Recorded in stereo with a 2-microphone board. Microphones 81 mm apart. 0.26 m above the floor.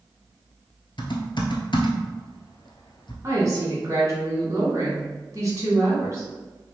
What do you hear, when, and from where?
1.0 s typing on a keyboard: 80° left, 0.9 m
3.2 s a woman speaking: 40° right (ahead or behind), 1.8 m